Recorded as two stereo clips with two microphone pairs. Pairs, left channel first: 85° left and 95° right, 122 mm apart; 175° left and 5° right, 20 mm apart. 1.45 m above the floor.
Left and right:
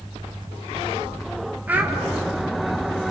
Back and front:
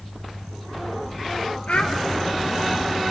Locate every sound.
1.7 s a child speaking: 170° right, 3 m